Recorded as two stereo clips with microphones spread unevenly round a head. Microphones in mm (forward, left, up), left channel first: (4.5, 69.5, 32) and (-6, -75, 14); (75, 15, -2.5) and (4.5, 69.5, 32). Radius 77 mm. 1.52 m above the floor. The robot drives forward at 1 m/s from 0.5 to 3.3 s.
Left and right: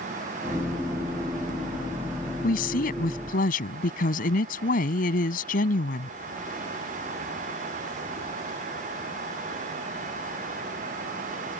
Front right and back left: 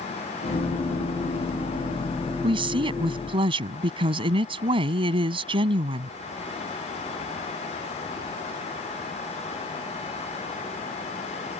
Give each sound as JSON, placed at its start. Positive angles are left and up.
{"t": 2.4, "sound": "a woman speaking", "azimuth_deg": 120}